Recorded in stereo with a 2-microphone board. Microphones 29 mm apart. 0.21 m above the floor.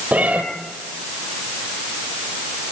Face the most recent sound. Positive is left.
turn(degrees=-65)  # may be behind; listen again after turning